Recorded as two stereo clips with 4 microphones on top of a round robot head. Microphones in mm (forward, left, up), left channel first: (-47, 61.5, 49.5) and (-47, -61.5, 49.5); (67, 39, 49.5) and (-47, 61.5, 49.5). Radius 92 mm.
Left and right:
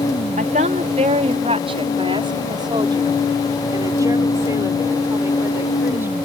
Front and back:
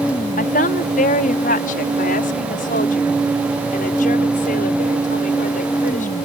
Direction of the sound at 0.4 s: 45° right.